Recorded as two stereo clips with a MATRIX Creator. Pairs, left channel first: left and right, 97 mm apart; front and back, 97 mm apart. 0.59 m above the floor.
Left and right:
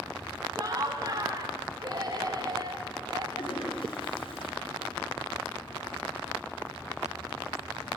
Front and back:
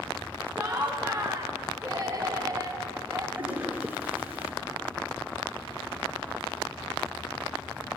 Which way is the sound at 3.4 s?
105° left.